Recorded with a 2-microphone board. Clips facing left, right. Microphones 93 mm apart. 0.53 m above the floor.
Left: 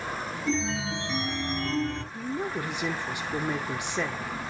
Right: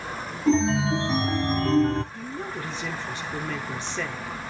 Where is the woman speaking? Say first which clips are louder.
Left 2 dB; 15° left (ahead or behind), 1.0 m.